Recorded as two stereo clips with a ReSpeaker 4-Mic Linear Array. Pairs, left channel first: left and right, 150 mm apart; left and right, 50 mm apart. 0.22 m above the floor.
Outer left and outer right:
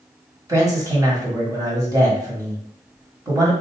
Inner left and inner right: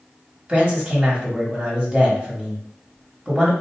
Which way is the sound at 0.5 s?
25° right (ahead or behind).